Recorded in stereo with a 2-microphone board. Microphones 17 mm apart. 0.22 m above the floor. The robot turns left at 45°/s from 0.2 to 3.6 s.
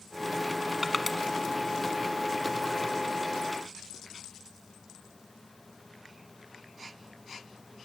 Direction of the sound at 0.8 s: 10° right (ahead or behind).